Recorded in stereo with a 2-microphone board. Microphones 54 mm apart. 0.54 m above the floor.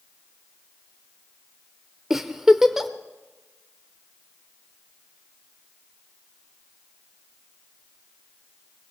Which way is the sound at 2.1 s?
10° right (ahead or behind).